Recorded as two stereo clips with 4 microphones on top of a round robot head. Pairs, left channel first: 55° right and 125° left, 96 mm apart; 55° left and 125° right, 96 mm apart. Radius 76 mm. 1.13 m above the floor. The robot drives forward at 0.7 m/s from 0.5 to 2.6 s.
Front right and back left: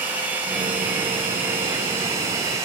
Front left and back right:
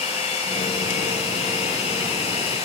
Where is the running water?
55° left, 5.5 m; by 2.7 s 70° left, 5 m.